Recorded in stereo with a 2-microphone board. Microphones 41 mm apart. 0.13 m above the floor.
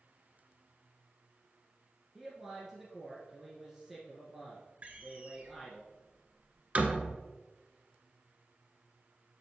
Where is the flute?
I don't hear a flute.